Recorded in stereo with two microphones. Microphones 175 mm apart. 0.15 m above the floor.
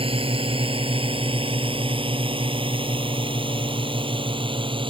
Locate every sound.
0.0 s a drone: 30° right (ahead or behind)